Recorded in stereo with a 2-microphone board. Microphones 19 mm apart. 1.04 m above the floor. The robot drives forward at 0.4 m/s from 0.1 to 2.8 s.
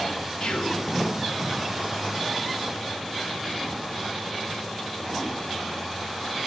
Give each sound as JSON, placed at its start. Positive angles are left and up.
{"t": 0.4, "sound": "whispering", "side_deg": 75, "distance_m": 0.9}